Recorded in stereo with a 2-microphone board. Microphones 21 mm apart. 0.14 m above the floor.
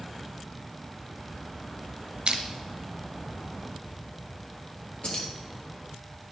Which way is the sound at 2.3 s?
50° right (ahead or behind).